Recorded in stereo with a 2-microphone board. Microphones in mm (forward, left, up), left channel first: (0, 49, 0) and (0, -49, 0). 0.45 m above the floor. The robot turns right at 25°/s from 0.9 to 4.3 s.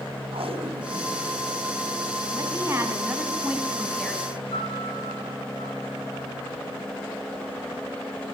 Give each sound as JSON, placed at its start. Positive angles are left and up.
{"t": 0.3, "sound": "tape being pulled", "side_deg": -75, "distance_m": 3.0}
{"t": 2.3, "sound": "a woman speaking", "azimuth_deg": -40, "distance_m": 4.5}
{"t": 4.5, "sound": "a piano", "side_deg": 80, "distance_m": 8.0}